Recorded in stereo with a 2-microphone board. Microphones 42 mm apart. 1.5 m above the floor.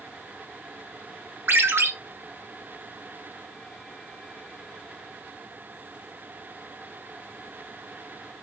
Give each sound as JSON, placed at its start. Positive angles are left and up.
{"t": 1.5, "sound": "a ringtone", "side_deg": -70, "distance_m": 1.4}